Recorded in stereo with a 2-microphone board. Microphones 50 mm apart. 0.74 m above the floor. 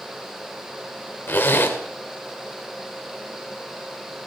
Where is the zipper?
50° left (ahead or behind), 1.5 m.